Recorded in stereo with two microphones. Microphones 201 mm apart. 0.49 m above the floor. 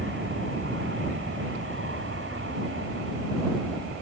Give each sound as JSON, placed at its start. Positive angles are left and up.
{"t": 0.0, "sound": "an aircraft", "side_deg": -70}